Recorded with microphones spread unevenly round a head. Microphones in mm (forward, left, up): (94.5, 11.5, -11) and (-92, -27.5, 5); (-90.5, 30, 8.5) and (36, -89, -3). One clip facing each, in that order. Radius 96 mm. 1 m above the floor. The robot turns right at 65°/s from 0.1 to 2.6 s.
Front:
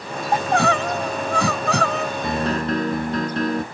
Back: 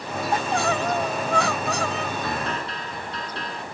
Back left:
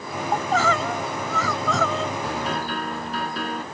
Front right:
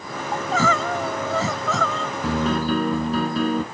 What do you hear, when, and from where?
0.3 s crying: 45° right; by 2.1 s 70° left
2.2 s a piano: 65° right; by 3.6 s 40° right